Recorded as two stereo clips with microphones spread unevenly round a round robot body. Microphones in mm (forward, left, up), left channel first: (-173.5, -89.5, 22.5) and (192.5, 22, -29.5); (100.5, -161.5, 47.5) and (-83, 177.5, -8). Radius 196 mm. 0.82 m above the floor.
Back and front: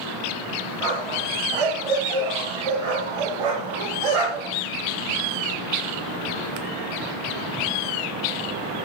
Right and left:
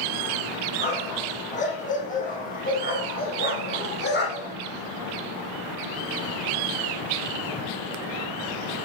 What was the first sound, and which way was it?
A dog barking, 10° left.